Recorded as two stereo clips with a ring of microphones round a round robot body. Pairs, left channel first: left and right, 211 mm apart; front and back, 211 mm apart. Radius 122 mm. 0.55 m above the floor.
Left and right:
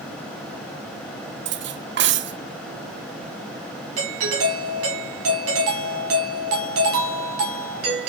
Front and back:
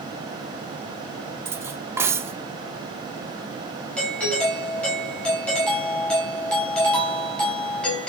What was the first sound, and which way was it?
Cutlery clinking, 105° right.